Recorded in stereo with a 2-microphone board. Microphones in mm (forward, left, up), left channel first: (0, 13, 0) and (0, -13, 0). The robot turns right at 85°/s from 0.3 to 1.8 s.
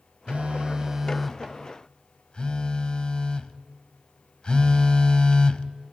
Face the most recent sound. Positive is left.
turn(degrees=50)